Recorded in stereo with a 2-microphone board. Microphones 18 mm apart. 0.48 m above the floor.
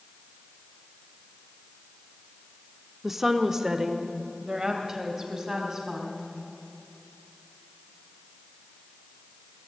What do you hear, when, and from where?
3.0 s a woman speaking: 15° right (ahead or behind), 0.8 m; by 6.3 s 35° right (ahead or behind), 4 m